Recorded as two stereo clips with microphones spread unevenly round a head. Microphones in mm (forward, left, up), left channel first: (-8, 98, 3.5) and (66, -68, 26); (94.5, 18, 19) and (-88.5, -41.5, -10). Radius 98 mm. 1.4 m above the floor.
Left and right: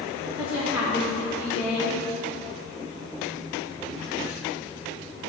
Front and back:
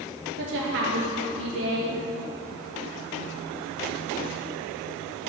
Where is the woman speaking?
150° right, 0.9 m.